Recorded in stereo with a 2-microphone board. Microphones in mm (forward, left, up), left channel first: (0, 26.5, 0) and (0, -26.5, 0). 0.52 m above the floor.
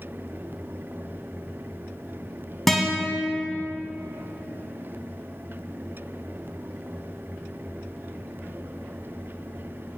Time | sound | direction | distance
2.7 | a guitar | 5° left (ahead or behind) | 1.6 m